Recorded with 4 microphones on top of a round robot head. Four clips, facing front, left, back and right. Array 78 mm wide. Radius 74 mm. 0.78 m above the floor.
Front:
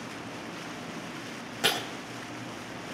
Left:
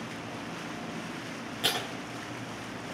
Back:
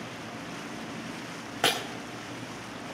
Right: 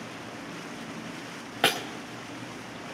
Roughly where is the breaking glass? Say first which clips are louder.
Right 6 dB, back 2 dB; behind right.